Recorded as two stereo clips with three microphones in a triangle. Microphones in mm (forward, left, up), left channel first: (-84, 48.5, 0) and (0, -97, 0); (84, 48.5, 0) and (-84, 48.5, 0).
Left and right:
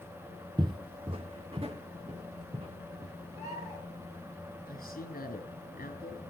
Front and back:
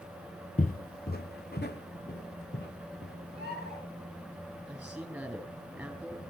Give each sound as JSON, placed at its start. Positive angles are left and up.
{"t": 0.6, "sound": "footsteps", "azimuth_deg": -10, "distance_m": 0.6}
{"t": 3.3, "sound": "a bird", "azimuth_deg": 10, "distance_m": 9.0}
{"t": 4.7, "sound": "a man speaking", "azimuth_deg": 95, "distance_m": 4.0}